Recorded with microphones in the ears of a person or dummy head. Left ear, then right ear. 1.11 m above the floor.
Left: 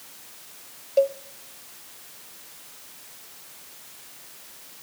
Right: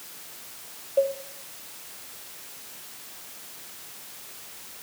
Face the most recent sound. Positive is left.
turn(degrees=45)  # may be behind; listen again after turning